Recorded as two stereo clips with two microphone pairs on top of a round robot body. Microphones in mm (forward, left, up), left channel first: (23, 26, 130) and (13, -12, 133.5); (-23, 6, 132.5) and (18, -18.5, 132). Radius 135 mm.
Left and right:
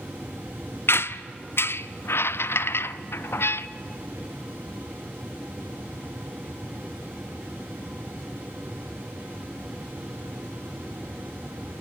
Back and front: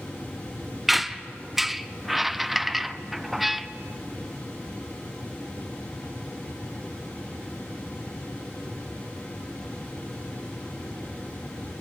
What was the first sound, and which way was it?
A squeak, 60° left.